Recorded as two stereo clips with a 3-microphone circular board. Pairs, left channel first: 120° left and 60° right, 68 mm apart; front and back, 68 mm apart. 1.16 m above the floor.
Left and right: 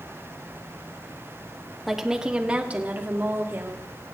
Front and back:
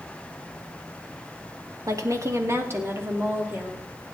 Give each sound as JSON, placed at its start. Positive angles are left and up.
{"t": 1.9, "sound": "a woman speaking", "azimuth_deg": -150, "distance_m": 1.8}